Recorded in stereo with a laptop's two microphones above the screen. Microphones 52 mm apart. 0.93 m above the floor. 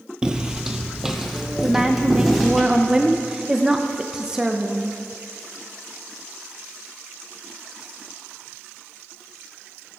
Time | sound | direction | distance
0.2 | footsteps | 15° right (ahead or behind) | 1.0 m
1.6 | a woman speaking | 15° right (ahead or behind) | 0.5 m